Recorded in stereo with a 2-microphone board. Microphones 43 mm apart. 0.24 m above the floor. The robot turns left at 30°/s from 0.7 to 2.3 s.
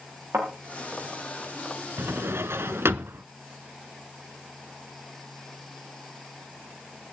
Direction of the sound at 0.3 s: 70° right (ahead or behind).